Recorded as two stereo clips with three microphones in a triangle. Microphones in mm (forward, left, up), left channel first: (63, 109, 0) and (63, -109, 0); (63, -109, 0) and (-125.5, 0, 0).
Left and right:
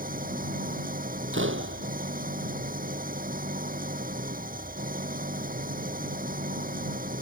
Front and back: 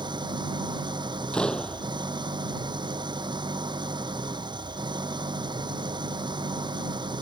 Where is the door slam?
115° right.